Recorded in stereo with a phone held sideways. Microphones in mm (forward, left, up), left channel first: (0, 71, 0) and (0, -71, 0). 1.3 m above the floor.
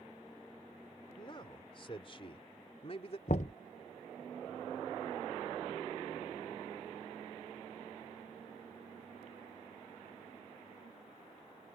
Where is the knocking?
60° left (ahead or behind).